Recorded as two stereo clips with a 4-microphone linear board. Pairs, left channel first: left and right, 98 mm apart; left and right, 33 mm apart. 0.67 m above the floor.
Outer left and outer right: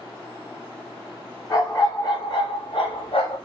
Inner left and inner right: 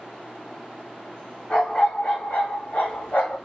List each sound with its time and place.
1.5 s a dog barking: 35° left (ahead or behind), 1.3 m; by 3.4 s 80° left, 1.3 m